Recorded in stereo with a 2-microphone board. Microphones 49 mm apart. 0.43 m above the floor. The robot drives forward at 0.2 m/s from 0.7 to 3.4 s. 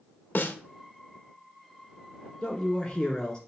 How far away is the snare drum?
About 0.6 m.